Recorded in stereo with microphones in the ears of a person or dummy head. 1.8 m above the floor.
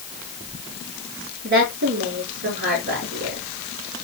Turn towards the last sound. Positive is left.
turn(degrees=-50)  # may be behind; listen again after turning